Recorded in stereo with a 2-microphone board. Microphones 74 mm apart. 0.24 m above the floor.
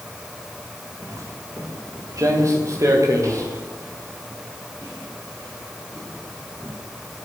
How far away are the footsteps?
About 4.5 m.